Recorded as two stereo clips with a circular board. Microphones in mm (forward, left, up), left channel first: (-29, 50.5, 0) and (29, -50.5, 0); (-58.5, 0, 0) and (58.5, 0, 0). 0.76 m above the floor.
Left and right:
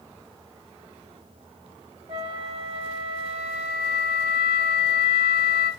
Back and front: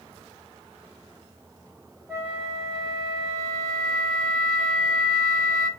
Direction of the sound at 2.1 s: 50° right.